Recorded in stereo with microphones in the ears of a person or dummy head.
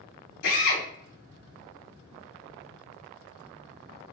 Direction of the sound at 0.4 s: 85° left.